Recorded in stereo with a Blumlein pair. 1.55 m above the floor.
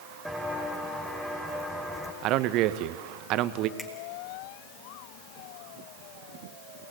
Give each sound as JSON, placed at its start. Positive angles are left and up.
{"t": 0.2, "sound": "footsteps", "azimuth_deg": 0, "distance_m": 5.5}
{"t": 2.2, "sound": "a man speaking", "azimuth_deg": -40, "distance_m": 1.5}
{"t": 3.8, "sound": "a finger snap", "azimuth_deg": 15, "distance_m": 4.5}